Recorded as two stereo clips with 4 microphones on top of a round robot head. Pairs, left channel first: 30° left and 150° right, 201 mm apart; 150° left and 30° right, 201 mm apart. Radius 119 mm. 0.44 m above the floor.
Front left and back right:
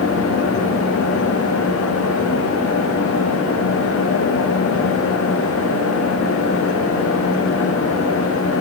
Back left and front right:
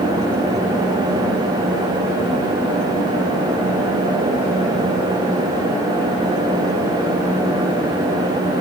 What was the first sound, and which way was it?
Only background noise.